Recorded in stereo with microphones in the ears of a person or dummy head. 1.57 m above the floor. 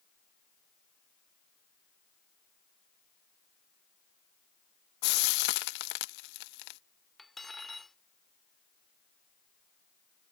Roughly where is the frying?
Left.